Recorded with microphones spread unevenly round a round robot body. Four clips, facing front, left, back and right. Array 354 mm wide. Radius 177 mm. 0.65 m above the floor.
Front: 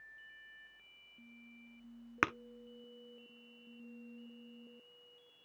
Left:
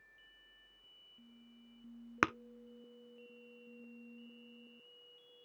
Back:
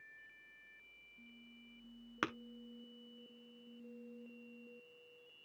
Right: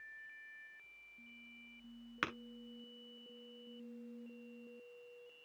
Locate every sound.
2.2 s tapping: 50° left, 0.7 m